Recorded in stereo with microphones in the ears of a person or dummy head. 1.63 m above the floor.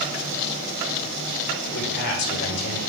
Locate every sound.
1.6 s a man speaking: 60° left (ahead or behind), 5.5 m